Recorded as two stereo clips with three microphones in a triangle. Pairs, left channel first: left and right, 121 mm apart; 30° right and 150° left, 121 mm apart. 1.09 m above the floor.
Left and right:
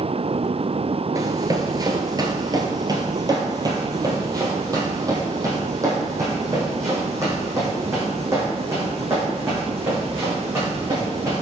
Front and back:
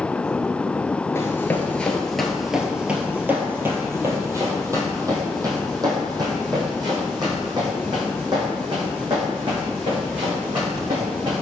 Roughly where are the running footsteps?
Right.